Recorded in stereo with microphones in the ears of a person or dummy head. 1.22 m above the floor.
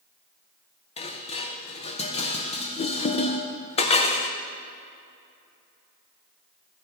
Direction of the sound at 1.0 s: 30° left (ahead or behind).